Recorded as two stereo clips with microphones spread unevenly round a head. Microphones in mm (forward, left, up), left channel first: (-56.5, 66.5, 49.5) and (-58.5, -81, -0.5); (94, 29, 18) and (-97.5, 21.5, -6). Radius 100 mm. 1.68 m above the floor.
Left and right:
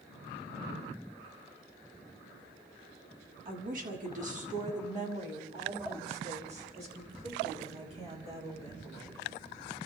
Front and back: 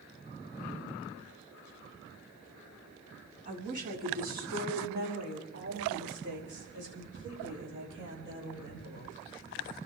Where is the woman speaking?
120° right, 4 m; by 9.2 s 145° right, 8.5 m.